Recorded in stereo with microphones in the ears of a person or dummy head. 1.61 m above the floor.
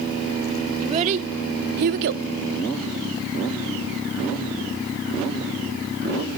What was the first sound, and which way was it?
A child speaking, 35° right (ahead or behind).